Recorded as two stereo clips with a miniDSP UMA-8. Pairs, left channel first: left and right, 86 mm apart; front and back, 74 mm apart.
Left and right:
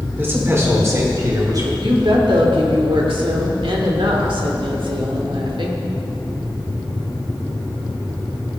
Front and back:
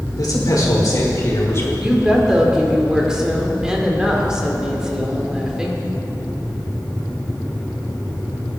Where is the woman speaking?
100° right, 2 m.